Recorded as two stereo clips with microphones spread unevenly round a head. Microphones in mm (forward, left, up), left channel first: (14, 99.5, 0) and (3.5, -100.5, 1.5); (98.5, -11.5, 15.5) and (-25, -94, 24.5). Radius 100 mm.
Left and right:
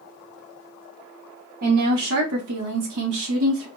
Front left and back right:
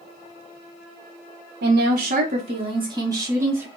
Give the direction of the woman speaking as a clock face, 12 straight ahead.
4 o'clock.